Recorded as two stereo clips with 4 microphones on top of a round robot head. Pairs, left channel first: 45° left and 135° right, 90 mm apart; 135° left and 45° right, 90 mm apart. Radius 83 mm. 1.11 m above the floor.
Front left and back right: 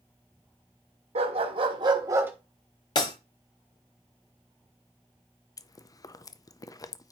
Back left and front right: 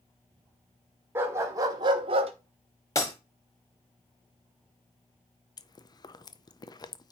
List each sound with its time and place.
1.1 s a dog barking: 110° right, 1.6 m; by 2.3 s 60° right, 1.0 m
3.0 s breaking glass: 80° left, 1.0 m
5.6 s chewing: 95° left, 0.7 m